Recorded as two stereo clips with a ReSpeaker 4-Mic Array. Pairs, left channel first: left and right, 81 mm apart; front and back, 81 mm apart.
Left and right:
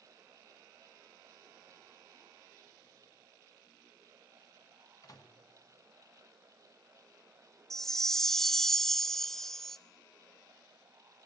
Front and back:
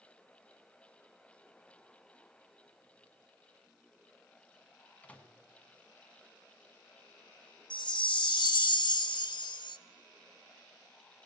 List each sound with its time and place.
5.0 s a microwave: 70° left, 1.7 m
7.7 s a chime: 5° left, 0.5 m